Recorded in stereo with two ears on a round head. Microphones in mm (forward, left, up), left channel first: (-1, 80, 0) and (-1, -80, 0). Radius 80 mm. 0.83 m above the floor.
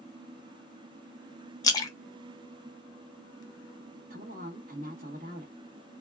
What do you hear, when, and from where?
1.6 s a splash: 25° left (ahead or behind), 0.5 m
4.1 s a woman speaking: 50° right (ahead or behind), 1.3 m